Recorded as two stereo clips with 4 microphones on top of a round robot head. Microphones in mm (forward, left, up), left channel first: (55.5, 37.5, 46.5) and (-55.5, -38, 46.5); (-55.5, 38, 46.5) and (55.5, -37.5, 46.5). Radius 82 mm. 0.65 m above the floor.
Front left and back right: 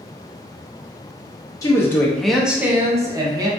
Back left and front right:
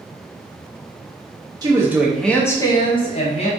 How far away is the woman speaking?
About 0.7 m.